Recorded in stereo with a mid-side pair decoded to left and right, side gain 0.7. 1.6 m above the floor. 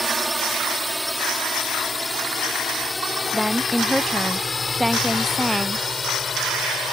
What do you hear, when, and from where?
0.0 s a drone: 10° right; by 6.9 s 25° left
3.3 s a woman speaking: straight ahead